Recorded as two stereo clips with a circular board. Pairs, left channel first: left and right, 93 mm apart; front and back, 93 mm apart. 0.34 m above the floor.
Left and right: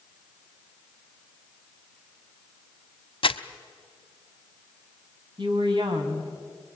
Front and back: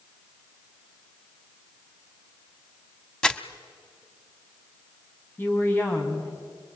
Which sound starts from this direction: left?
Crumpling, at 3.2 s.